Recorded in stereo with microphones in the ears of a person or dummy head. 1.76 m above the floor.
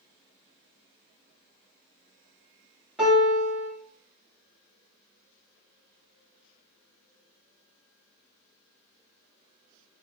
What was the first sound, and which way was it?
A piano, 5° right (ahead or behind).